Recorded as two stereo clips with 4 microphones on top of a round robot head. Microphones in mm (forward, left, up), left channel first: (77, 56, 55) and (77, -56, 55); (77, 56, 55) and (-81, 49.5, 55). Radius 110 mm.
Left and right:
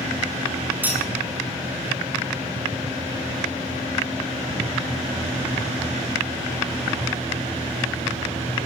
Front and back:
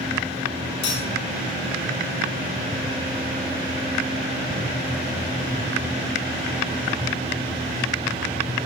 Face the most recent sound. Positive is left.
turn(degrees=-15)